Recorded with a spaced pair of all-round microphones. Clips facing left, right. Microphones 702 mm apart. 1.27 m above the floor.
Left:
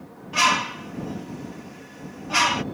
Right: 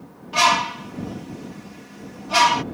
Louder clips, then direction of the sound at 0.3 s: Right 3 dB; 60° right (ahead or behind).